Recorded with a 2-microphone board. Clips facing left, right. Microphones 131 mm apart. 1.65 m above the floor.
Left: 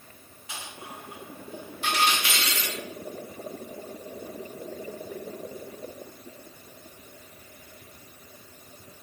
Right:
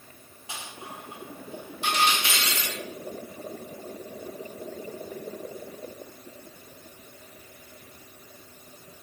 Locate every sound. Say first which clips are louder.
0.5 s a dropped coin: right 1 dB; 25° right (ahead or behind), 1.0 m